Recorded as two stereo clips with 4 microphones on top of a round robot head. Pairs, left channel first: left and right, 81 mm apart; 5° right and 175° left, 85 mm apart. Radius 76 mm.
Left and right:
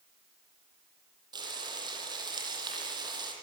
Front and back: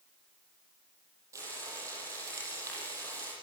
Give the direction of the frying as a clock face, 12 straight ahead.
4 o'clock.